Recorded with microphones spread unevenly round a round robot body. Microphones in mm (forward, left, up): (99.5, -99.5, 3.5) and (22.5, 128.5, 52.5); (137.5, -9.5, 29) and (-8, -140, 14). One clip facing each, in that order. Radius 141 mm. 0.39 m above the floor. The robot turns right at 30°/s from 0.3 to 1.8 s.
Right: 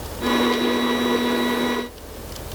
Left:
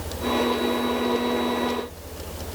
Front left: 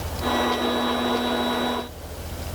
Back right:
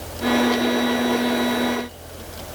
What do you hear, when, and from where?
Only background noise.